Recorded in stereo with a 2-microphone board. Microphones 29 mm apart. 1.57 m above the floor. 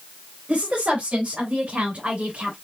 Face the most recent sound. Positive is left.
turn(degrees=-45)  # may be behind; listen again after turning